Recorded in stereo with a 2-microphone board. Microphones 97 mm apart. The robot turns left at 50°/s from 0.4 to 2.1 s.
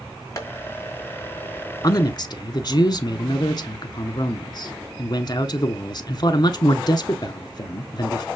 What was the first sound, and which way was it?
Tapping, 35° left (ahead or behind).